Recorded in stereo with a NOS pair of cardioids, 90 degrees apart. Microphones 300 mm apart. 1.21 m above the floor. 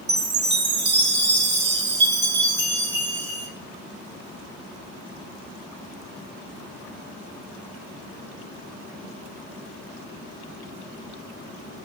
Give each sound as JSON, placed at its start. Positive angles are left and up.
{"t": 0.1, "sound": "a chime", "azimuth_deg": -35, "distance_m": 4.0}